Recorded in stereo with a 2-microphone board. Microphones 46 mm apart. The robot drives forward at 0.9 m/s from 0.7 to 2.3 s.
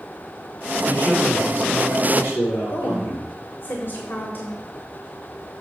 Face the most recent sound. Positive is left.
turn(degrees=45)  # may be behind; listen again after turning